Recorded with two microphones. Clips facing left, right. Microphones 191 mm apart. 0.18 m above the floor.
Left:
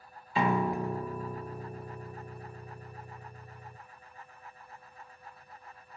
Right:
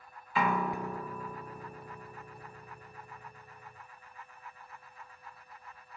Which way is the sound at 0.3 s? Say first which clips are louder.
Left 3 dB; 30° left (ahead or behind).